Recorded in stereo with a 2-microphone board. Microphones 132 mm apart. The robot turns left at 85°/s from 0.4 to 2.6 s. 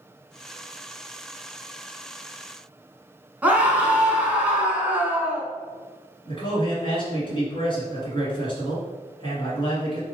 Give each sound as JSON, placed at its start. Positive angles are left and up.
{"t": 3.4, "sound": "a scream", "side_deg": -10, "distance_m": 1.1}
{"t": 6.2, "sound": "a man speaking", "side_deg": 40, "distance_m": 1.7}